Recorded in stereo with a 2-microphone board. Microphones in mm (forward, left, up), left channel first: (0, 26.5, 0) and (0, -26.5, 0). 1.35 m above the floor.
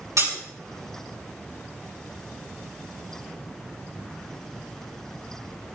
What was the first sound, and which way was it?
Breaking glass, 85° right.